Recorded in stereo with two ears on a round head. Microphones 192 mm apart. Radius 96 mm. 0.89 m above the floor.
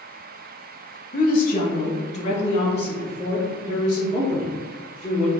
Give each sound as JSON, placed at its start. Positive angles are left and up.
{"t": 1.1, "sound": "a woman speaking", "side_deg": 45, "distance_m": 0.7}